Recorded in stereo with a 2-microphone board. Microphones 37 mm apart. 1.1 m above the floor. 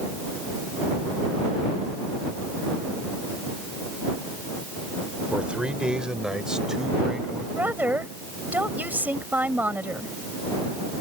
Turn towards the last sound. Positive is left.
turn(degrees=-55)  # may be behind; listen again after turning